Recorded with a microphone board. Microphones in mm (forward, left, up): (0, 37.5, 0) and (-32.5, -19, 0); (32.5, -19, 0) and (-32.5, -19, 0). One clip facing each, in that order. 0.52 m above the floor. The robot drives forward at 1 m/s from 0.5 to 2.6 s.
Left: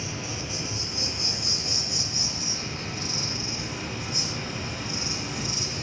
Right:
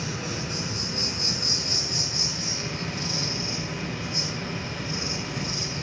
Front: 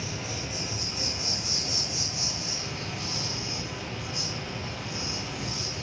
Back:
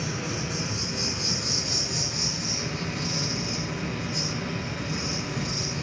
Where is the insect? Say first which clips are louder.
Right 3 dB, back 4 dB; 170° right, 9 m.